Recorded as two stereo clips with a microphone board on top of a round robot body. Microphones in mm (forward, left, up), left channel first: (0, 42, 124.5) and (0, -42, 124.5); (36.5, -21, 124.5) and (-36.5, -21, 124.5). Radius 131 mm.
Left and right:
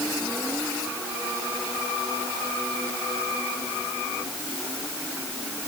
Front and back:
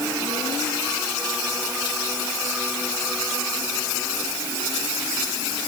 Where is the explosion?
I don't hear an explosion.